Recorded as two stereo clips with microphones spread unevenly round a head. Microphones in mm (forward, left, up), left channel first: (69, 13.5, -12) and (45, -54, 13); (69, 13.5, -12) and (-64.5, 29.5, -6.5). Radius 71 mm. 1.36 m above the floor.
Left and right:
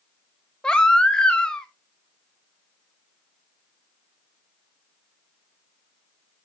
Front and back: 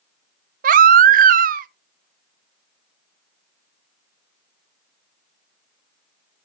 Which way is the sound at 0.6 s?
160° left.